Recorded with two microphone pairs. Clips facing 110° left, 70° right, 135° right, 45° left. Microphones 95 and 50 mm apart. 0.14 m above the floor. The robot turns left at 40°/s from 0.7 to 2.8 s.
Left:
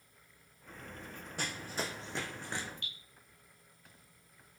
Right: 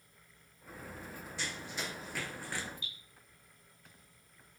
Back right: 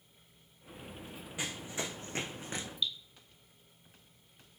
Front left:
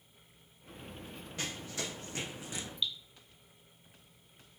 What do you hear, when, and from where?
1.4 s running footsteps: 150° left, 0.6 m; by 2.7 s 175° left, 0.8 m
2.8 s dripping: 125° left, 1.0 m